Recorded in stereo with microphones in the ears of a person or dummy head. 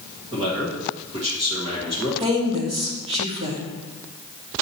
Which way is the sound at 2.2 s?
30° right (ahead or behind).